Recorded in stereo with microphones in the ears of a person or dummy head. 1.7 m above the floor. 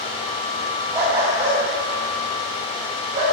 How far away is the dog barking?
About 4 m.